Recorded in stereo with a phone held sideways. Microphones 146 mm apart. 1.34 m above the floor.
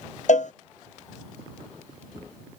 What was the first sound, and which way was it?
A cowbell, 60° left (ahead or behind).